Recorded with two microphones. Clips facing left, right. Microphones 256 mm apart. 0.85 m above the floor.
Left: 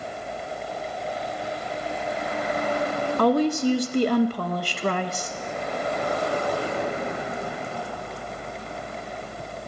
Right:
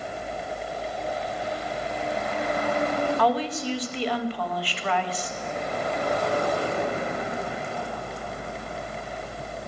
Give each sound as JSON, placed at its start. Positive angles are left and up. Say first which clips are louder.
{"t": 3.2, "sound": "a woman speaking", "louder": "left 6 dB", "side_deg": 50, "distance_m": 0.7}